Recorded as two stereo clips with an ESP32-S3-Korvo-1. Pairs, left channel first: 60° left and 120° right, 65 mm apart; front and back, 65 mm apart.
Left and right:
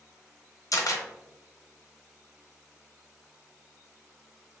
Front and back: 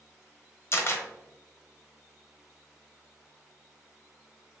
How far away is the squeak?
No squeak in this recording.